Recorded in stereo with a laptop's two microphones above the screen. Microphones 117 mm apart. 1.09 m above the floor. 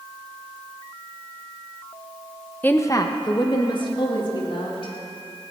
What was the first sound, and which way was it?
A woman speaking, 15° left (ahead or behind).